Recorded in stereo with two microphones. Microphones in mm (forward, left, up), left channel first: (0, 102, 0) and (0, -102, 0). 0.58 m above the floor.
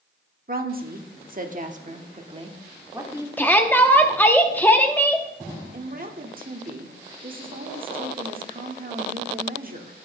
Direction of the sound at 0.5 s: 45° right (ahead or behind).